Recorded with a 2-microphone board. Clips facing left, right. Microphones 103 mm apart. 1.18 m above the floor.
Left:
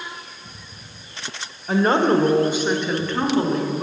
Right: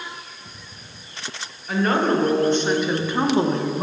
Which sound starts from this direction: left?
A woman speaking, at 1.7 s.